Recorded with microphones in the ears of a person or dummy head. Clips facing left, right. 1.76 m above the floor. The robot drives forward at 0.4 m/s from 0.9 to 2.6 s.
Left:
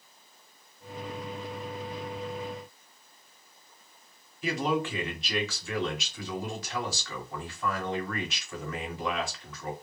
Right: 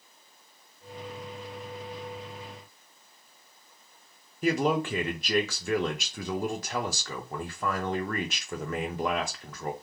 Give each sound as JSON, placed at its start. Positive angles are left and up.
{"t": 4.4, "sound": "a man speaking", "side_deg": -45, "distance_m": 0.8}